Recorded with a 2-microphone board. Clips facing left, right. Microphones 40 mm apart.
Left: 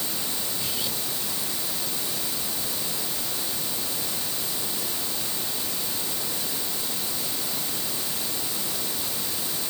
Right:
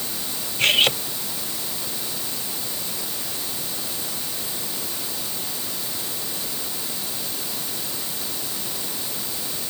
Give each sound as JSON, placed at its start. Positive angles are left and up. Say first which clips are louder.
{"t": 0.6, "sound": "cutlery clinking", "louder": "right 19 dB", "side_deg": -65}